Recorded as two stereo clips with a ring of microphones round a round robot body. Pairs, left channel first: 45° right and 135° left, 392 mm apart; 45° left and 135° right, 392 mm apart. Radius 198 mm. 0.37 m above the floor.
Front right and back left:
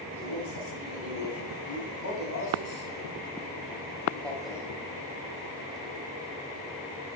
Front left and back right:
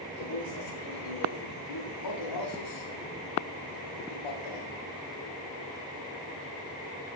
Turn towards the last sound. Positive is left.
turn(degrees=50)